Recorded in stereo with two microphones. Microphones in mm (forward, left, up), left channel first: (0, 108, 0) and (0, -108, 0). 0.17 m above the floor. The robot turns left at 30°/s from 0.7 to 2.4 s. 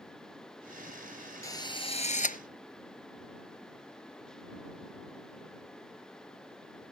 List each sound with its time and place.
1.4 s a drill: 15° left (ahead or behind); by 2.4 s 40° left (ahead or behind)